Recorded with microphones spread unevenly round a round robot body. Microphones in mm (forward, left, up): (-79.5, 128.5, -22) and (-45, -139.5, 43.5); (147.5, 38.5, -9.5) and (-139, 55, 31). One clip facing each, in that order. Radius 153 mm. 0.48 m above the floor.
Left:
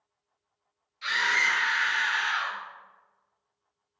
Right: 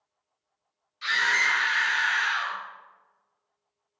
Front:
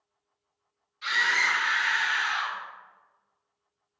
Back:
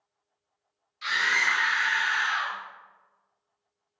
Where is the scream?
150° right, 1.5 m; by 2.6 s 60° right, 1.2 m.